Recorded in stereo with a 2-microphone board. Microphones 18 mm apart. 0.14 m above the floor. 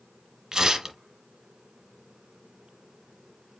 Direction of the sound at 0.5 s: 35° right (ahead or behind).